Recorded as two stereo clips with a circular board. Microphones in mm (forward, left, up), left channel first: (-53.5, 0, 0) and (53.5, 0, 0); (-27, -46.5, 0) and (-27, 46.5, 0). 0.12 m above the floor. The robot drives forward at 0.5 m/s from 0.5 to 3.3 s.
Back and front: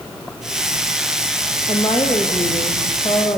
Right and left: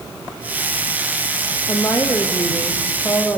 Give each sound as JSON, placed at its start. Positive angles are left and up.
{"t": 1.7, "sound": "a woman speaking", "azimuth_deg": -140, "distance_m": 3.5}